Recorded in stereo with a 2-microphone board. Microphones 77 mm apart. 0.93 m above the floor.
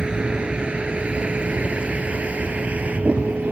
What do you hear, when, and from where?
0.0 s a vehicle: 10° right (ahead or behind); by 3.5 s 20° right (ahead or behind)